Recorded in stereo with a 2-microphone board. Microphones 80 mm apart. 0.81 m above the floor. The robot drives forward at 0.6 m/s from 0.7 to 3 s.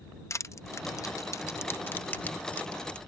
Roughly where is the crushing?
Left.